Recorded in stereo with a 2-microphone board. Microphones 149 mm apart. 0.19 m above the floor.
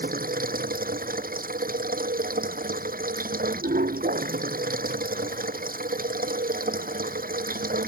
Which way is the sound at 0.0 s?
75° right (ahead or behind).